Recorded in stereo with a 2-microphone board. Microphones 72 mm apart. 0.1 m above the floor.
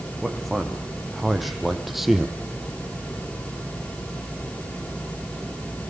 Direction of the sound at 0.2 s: Centre (ahead or behind).